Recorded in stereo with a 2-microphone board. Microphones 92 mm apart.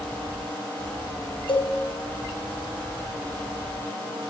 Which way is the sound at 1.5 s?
70° left (ahead or behind).